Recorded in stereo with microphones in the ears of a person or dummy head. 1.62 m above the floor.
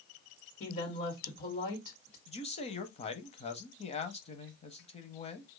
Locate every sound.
0.6 s a woman speaking: 45° left (ahead or behind), 1.7 m
2.3 s a man speaking: 30° left (ahead or behind), 0.6 m